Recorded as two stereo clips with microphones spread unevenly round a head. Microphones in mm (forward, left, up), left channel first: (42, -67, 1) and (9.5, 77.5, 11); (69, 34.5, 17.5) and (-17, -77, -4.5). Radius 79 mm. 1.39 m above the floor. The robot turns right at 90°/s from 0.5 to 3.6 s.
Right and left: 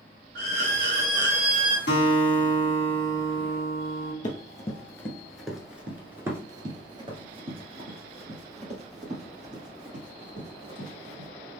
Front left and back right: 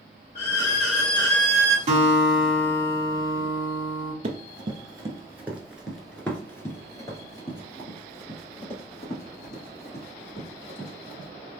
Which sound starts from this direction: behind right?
Running footsteps, at 4.2 s.